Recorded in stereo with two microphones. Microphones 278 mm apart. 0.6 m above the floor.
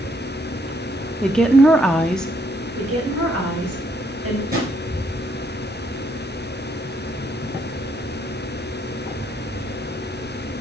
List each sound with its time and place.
1.2 s a woman speaking: 5° left (ahead or behind), 0.7 m
2.8 s a woman speaking: 55° right (ahead or behind), 3 m
4.5 s a drawer: 35° right (ahead or behind), 3.5 m